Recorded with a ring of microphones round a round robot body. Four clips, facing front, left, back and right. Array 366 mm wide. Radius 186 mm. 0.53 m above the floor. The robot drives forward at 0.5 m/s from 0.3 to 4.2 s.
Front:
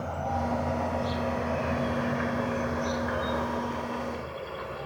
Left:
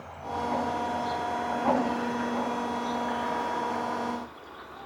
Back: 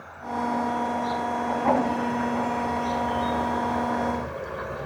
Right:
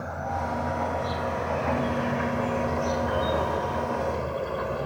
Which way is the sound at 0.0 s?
40° right.